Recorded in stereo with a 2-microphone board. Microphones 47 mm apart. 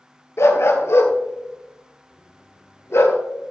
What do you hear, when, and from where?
0.4 s a dog barking: 70° left (ahead or behind), 1.1 m